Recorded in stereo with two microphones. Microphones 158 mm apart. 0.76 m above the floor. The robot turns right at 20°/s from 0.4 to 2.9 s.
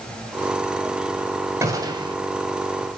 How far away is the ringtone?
No ringtone in this recording.